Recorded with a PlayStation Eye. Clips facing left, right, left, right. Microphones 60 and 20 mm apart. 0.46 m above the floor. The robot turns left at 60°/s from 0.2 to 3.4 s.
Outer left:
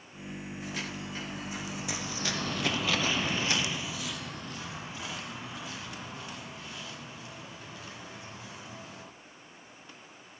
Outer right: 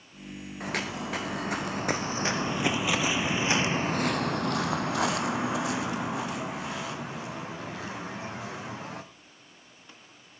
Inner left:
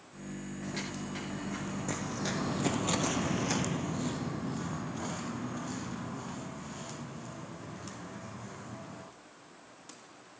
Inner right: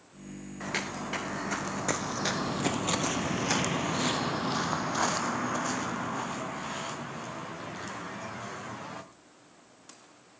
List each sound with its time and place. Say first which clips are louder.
0.6 s footsteps: outer right 8 dB, inner right 7 dB; 60° right (ahead or behind), 2 m; by 9.0 s 70° right (ahead or behind), 4 m